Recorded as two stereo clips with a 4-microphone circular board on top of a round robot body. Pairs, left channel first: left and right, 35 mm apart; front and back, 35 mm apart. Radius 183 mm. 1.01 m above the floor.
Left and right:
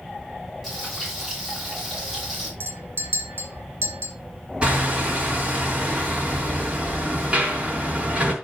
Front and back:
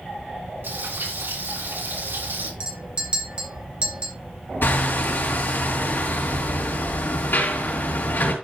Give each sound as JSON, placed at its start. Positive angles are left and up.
{"t": 0.6, "sound": "frying", "azimuth_deg": 180, "distance_m": 6.0}
{"t": 2.6, "sound": "a clink", "azimuth_deg": -120, "distance_m": 1.3}
{"t": 4.6, "sound": "hammering", "azimuth_deg": -30, "distance_m": 4.0}